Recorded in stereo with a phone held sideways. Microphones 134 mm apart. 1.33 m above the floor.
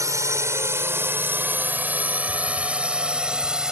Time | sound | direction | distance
0.0 | a drone | 25° right (ahead or behind) | ?